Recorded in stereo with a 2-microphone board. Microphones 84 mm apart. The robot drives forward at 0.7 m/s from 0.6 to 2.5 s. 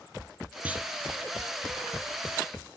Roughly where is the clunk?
Centre.